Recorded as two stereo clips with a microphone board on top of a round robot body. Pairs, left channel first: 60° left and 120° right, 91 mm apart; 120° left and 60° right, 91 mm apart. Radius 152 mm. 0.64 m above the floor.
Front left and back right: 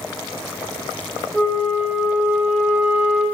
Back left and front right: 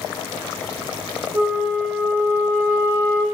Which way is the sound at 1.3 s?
15° right.